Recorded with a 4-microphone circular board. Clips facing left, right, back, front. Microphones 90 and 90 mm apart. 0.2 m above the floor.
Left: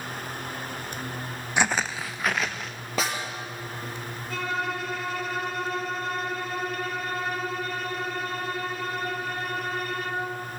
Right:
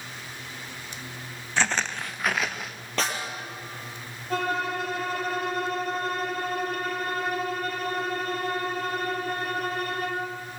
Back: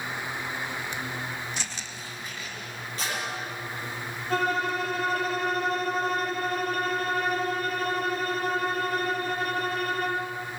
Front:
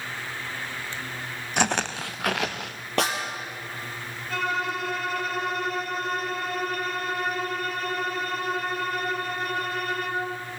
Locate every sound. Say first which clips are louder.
1.6 s footsteps: left 1 dB, front 12 dB; 15° left, 0.5 m; by 2.8 s 5° right, 1.4 m
3.0 s a snare drum: even, front 8 dB; 10° left, 4.5 m
4.3 s a violin: right 3 dB, back 2 dB; 135° right, 4 m